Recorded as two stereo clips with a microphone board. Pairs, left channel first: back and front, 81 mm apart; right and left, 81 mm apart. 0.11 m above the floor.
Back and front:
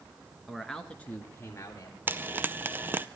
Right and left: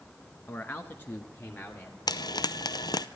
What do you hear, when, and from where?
0.5 s a man speaking: 75° right, 1.2 m; by 2.0 s 150° right, 1.7 m
2.1 s frying: 65° right, 0.5 m